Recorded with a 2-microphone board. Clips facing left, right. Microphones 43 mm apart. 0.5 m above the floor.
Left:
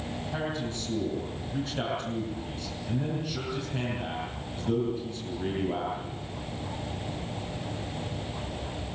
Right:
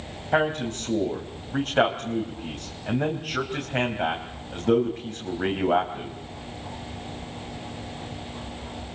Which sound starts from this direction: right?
A man speaking, at 0.3 s.